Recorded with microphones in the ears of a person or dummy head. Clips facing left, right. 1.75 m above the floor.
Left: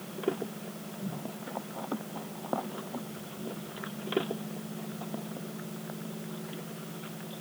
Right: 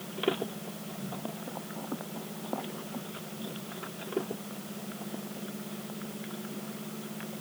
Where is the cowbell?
I don't hear a cowbell.